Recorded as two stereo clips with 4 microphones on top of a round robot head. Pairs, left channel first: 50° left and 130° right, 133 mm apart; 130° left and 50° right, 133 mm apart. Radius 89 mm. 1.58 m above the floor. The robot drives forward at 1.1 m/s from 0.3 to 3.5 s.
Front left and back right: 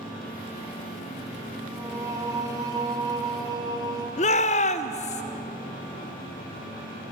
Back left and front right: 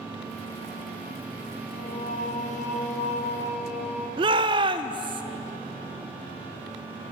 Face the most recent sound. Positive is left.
turn(degrees=10)